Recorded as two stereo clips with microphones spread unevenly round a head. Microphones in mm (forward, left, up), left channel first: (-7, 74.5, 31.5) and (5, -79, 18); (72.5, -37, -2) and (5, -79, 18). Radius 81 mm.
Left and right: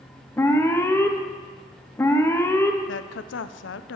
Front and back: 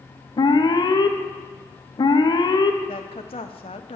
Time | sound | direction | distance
0.4 | an alarm | 15° left | 1.3 m
2.9 | a woman speaking | 80° left | 0.6 m